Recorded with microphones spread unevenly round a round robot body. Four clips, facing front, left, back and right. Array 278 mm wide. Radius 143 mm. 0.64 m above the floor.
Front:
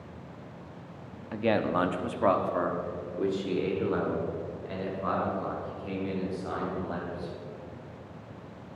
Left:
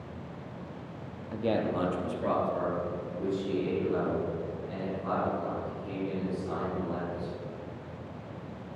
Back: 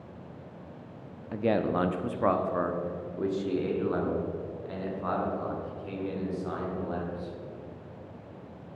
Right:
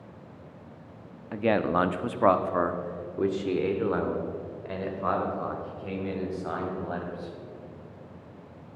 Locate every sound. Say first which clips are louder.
1.3 s a man speaking: right 5 dB, even; 50° right, 0.8 m; by 7.3 s 75° right, 4 m